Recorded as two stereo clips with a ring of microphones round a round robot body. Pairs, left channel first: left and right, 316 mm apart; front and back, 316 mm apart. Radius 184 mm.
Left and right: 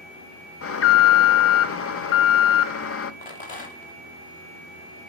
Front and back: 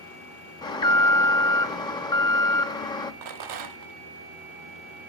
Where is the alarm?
70° left, 0.9 m.